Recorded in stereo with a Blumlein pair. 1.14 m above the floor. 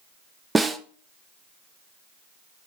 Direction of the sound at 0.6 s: 10° right.